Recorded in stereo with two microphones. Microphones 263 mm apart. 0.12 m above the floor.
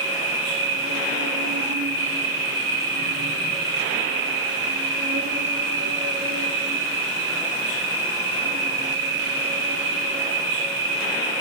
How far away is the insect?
About 2 m.